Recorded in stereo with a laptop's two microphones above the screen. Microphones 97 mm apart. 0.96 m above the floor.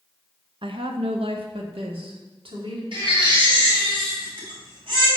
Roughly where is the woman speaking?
Right.